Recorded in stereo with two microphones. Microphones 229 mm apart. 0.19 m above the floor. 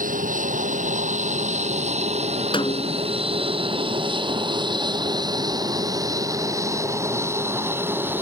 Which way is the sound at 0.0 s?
35° right (ahead or behind).